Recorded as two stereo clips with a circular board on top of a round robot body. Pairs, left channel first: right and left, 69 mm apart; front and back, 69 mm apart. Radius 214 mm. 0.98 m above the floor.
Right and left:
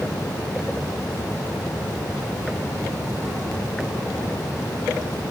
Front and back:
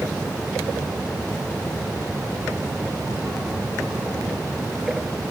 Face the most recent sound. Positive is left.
No sound to turn to.